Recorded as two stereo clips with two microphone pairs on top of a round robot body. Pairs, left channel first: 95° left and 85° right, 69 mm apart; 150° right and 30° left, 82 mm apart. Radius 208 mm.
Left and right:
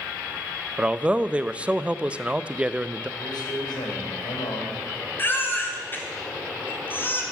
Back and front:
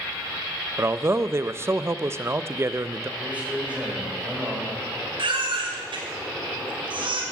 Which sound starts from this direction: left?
A man speaking, at 3.2 s.